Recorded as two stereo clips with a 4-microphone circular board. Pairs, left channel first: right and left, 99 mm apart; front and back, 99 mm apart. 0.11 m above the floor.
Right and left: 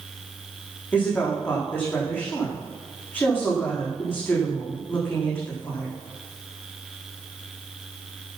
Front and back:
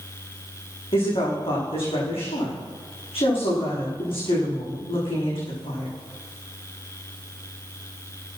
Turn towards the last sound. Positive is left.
turn(degrees=-15)